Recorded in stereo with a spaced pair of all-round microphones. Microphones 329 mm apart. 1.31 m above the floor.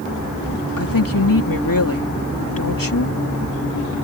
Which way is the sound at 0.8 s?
85° left.